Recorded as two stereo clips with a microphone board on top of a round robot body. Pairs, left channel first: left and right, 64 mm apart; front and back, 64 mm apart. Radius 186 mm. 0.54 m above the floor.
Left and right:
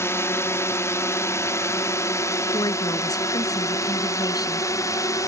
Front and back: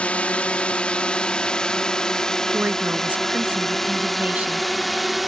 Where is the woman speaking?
115° left.